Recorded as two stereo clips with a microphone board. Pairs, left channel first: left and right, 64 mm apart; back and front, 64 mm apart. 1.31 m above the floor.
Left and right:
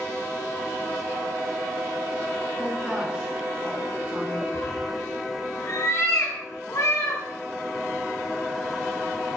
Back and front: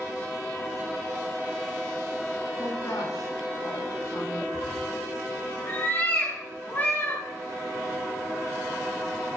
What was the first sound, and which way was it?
A woman speaking, 155° right.